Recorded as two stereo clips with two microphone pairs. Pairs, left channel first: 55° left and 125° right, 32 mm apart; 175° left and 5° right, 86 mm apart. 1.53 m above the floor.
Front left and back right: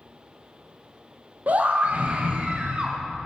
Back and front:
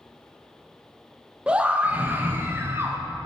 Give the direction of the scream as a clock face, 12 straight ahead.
3 o'clock.